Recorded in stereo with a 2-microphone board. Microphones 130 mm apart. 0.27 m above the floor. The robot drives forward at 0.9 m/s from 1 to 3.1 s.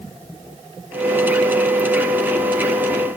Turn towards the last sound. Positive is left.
No sound to turn to.